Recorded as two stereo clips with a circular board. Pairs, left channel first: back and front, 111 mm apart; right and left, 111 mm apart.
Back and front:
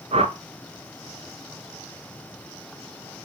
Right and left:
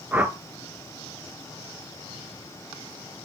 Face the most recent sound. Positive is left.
turn(degrees=15)